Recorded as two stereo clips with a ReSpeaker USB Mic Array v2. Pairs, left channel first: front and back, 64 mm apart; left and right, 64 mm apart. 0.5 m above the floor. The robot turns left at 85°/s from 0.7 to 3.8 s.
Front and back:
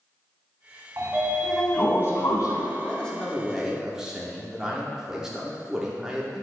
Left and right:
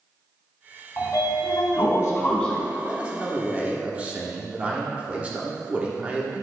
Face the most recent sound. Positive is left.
turn(degrees=-115)